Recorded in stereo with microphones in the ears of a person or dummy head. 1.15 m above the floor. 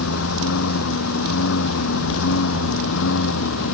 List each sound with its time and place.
0.0 s a lawn mower: 85° left; by 3.7 s 80° left